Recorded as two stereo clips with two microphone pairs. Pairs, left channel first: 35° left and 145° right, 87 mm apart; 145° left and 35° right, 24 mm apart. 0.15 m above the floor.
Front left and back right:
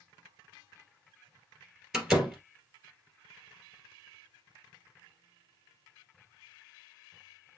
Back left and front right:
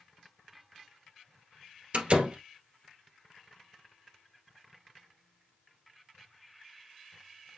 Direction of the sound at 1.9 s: 60° right.